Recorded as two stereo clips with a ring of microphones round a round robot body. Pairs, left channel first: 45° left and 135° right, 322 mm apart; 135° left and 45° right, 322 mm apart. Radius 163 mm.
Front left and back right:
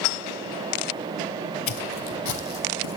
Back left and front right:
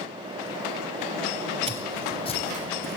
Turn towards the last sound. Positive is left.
turn(degrees=75)